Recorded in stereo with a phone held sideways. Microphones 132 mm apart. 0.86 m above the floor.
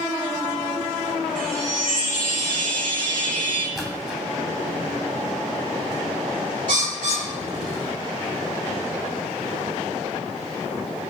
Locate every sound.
1.4 s a chime: 85° right, 5.5 m
3.8 s a splash: centre (ahead or behind), 2.0 m
6.7 s a bird: 75° right (ahead or behind), 2 m